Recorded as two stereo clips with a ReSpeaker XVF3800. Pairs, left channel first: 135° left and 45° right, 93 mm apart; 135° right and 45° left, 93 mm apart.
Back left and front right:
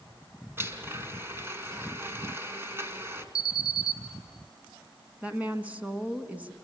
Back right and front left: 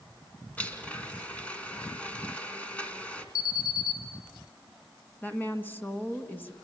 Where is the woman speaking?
95° right, 1.5 m.